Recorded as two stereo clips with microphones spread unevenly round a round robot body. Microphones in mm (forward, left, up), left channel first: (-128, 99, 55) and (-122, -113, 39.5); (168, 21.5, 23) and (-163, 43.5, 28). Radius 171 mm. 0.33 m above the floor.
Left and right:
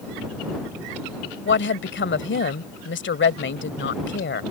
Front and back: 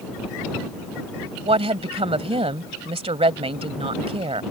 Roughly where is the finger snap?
I don't hear a finger snap.